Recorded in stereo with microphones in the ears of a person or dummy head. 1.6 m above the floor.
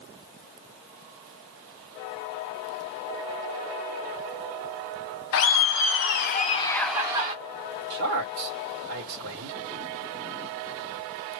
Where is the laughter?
70° left (ahead or behind), 0.9 m; by 7.3 s 20° right (ahead or behind), 0.6 m.